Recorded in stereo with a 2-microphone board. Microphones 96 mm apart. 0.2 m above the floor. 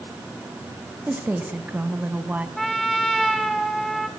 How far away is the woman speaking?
About 1.2 m.